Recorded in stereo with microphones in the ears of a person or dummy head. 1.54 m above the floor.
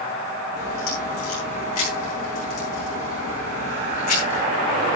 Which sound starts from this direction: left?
A crack, at 0.6 s.